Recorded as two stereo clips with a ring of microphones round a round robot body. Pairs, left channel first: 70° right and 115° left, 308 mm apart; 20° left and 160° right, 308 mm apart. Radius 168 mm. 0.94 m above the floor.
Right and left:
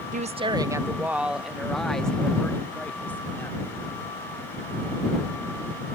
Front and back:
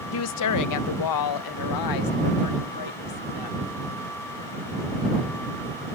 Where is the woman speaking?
55° left; by 3.7 s 15° left.